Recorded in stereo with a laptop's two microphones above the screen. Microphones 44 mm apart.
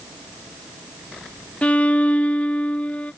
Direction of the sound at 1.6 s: 35° left (ahead or behind).